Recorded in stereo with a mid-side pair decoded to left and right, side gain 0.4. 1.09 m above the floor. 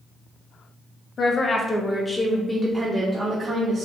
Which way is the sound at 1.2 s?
50° left.